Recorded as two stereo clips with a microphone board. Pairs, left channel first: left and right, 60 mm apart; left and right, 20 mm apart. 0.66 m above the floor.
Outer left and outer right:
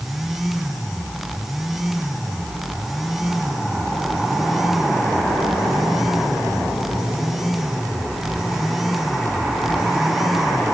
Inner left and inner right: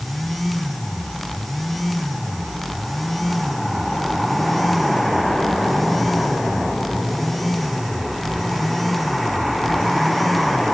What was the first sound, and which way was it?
Only background noise.